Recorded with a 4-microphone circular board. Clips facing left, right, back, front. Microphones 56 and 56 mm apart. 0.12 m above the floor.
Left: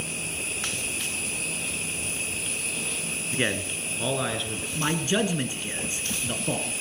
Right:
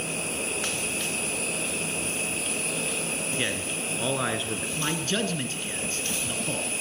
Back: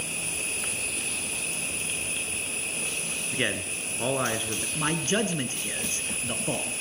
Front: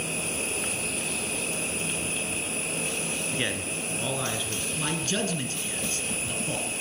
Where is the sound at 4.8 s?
155° left, 1.2 m.